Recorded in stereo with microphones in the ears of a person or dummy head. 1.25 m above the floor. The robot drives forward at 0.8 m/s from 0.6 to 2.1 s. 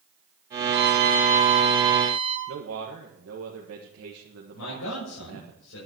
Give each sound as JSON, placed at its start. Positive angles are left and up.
{"t": 0.7, "sound": "a violin", "side_deg": -50, "distance_m": 0.7}
{"t": 2.5, "sound": "a man speaking", "side_deg": -70, "distance_m": 1.6}
{"t": 4.5, "sound": "a man speaking", "side_deg": 85, "distance_m": 7.0}